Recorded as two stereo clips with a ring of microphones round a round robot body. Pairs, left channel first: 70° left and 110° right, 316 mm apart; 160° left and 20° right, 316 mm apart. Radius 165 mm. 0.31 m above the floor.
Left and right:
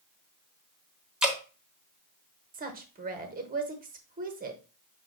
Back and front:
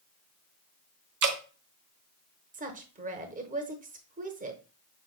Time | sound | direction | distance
1.2 | dripping | 25° right | 1.0 m
2.5 | a woman speaking | 70° right | 1.0 m